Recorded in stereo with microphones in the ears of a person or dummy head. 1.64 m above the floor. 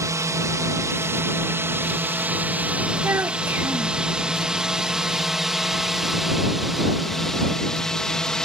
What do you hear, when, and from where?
0.0 s a drone: 10° right (ahead or behind); by 8.5 s 5° left (ahead or behind)
3.0 s a child speaking: 10° right (ahead or behind)